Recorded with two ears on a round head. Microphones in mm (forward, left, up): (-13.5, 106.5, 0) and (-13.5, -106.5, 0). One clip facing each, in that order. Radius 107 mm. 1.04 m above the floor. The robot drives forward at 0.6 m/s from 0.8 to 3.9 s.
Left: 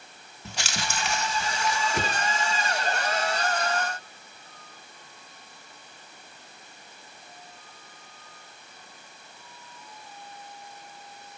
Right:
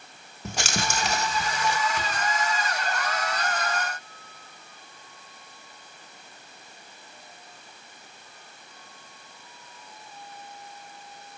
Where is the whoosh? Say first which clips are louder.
Left 3 dB; 40° left (ahead or behind), 1.0 m; by 2.2 s 45° left (ahead or behind), 1.0 m.